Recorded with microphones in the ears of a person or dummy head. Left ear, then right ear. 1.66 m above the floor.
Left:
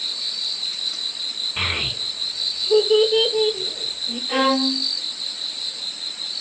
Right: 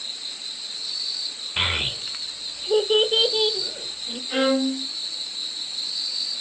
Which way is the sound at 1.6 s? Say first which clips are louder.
Right 2 dB; 35° right (ahead or behind).